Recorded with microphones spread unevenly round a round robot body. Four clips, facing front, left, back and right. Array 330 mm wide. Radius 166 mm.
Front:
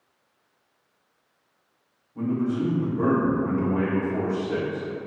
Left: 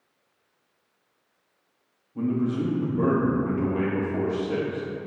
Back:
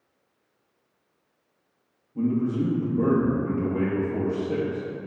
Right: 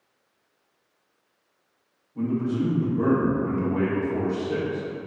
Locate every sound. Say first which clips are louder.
2.1 s a man speaking: even, back 1 dB; 135° left, 0.7 m